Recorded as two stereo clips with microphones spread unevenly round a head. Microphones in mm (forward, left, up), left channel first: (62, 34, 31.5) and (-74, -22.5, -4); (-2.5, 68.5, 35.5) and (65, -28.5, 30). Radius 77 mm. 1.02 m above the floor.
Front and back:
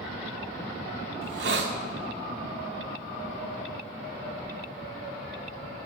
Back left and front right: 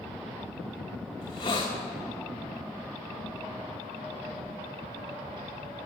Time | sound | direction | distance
1.2 | a hiss | 170° right | 1.2 m